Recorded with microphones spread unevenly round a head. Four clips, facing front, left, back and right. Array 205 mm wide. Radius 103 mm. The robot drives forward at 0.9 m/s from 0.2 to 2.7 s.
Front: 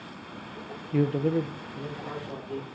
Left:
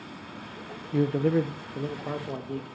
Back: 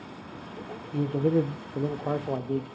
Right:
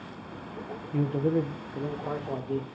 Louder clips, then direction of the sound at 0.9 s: Left 3 dB, even; 20° left.